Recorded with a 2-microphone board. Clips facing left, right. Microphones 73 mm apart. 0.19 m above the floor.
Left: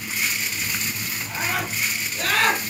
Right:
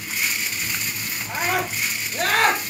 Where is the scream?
65° right (ahead or behind), 5 m; by 2.6 s 55° right (ahead or behind), 5.5 m.